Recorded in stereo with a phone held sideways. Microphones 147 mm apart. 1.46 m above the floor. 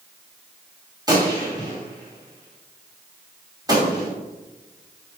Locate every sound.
1.1 s a gunshot: 25° right (ahead or behind), 2.5 m